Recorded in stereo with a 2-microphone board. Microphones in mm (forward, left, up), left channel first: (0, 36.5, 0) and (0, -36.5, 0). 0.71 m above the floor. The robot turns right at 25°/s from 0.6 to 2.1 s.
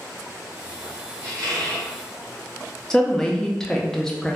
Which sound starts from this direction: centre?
A woman speaking, at 2.9 s.